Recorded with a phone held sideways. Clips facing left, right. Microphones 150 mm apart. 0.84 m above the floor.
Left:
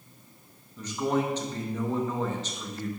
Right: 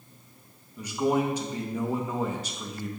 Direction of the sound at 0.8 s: 10° right (ahead or behind).